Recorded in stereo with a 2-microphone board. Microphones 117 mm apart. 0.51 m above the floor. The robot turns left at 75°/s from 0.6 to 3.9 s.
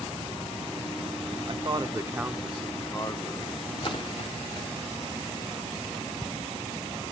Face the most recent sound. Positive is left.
turn(degrees=45)  # may be behind; listen again after turning